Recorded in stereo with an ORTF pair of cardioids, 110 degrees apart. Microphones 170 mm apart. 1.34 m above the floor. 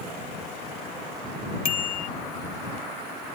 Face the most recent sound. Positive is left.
turn(degrees=60)